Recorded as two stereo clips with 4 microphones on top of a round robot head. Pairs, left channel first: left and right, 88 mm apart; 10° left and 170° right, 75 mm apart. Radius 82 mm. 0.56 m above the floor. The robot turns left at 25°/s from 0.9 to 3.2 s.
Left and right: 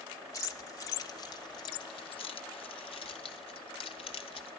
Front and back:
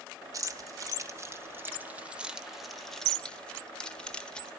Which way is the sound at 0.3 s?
145° left.